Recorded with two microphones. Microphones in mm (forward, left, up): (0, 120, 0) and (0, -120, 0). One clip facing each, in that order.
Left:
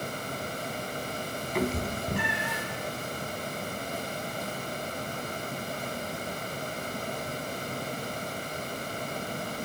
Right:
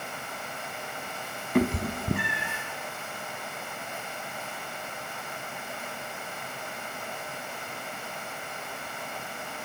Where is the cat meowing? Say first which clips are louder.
Right 5 dB; 55° right (ahead or behind), 0.6 m; by 2.6 s 65° right (ahead or behind), 1.1 m.